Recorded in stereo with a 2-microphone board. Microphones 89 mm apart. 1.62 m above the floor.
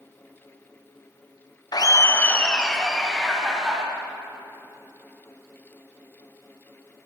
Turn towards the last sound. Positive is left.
turn(degrees=-10)  # may be behind; listen again after turning